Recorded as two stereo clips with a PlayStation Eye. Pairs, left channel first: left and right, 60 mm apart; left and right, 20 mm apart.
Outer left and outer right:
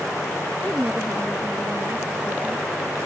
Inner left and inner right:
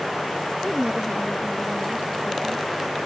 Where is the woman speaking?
40° right (ahead or behind).